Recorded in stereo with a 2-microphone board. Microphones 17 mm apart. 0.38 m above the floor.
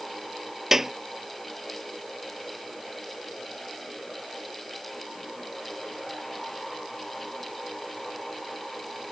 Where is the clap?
20° right (ahead or behind).